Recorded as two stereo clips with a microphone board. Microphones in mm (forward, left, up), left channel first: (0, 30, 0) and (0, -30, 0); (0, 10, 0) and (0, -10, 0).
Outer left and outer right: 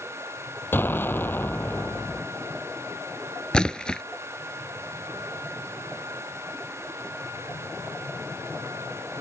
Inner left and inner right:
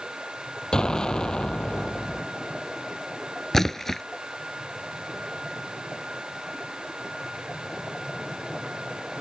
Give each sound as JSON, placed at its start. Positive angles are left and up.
{"t": 0.7, "sound": "an explosion", "side_deg": 35}
{"t": 3.5, "sound": "a splash", "side_deg": 15}